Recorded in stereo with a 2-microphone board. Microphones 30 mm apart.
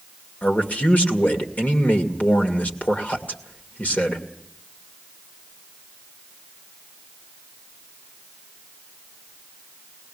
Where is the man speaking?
60° left (ahead or behind), 2.5 m.